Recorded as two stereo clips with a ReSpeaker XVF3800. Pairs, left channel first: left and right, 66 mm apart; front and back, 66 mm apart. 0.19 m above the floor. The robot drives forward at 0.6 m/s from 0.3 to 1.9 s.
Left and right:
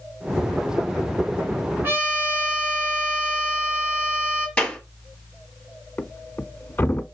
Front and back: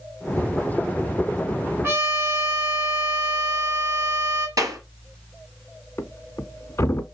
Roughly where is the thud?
Ahead left.